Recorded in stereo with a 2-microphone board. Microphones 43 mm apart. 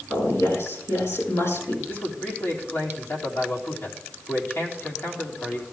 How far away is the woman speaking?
About 5.5 m.